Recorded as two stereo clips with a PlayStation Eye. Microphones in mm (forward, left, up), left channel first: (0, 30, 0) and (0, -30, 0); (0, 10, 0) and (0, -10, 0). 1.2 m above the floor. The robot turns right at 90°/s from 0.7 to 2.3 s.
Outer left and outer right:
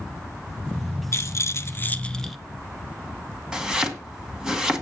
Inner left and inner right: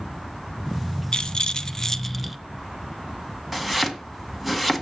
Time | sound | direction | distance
1.1 | a rattle | 70° left | 0.7 m
3.5 | chopping | 10° right (ahead or behind) | 1.6 m